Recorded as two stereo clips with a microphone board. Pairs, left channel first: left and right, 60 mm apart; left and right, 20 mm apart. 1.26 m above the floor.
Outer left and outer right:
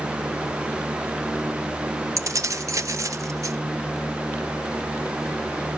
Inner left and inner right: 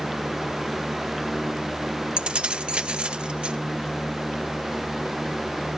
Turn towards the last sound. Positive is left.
turn(degrees=-60)  # may be behind; listen again after turning